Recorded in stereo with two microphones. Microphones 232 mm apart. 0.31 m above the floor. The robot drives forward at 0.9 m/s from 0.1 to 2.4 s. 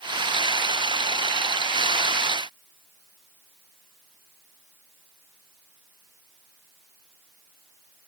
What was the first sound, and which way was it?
Only background noise.